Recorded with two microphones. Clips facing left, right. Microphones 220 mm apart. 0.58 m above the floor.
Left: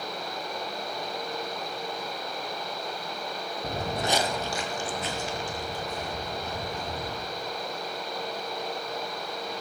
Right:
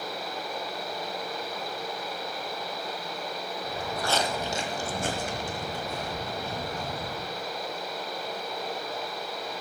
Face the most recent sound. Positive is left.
turn(degrees=-70)  # may be behind; listen again after turning